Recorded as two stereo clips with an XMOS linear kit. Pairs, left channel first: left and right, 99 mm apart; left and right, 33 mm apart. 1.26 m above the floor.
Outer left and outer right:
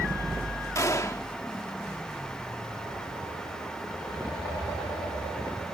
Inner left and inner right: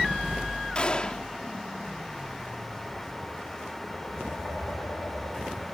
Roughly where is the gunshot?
Left.